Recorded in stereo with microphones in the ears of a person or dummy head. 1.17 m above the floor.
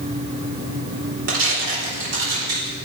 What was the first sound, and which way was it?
Tearing paper, 70° right (ahead or behind).